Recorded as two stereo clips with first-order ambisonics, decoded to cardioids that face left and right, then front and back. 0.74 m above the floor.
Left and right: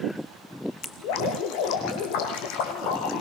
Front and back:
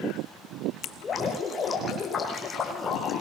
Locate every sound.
0.8 s dripping: 75° left, 7 m